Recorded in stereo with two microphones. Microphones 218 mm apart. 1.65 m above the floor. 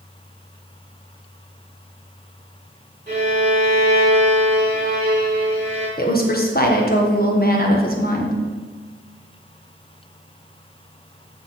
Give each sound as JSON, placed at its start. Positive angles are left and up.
{"t": 3.1, "sound": "a violin", "side_deg": -35, "distance_m": 4.0}
{"t": 6.0, "sound": "a woman speaking", "side_deg": 45, "distance_m": 1.6}